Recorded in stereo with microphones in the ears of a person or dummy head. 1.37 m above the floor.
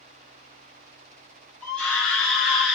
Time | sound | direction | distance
1.6 | a scream | 5° left (ahead or behind) | 2 m